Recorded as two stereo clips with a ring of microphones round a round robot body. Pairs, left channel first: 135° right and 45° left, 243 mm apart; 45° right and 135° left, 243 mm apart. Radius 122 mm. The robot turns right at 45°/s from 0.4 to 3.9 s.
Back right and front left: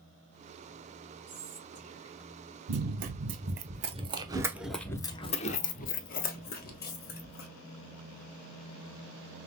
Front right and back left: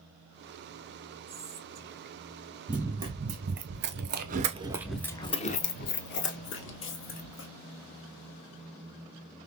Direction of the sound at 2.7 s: 45° left.